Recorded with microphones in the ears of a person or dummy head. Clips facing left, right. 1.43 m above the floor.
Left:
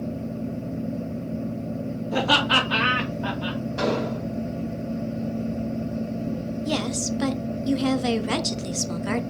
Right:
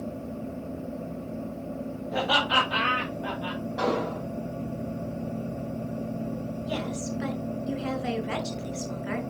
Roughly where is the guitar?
I don't hear a guitar.